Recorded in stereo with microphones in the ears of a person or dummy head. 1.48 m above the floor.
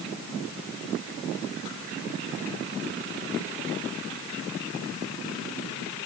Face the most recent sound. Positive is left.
No sound to turn to.